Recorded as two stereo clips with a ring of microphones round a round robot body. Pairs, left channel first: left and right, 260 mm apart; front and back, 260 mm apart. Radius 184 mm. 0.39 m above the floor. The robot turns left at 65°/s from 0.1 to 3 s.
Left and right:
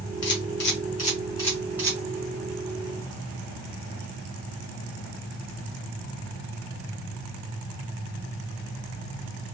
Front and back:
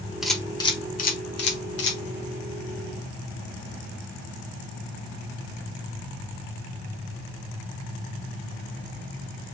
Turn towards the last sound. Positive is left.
turn(degrees=-90)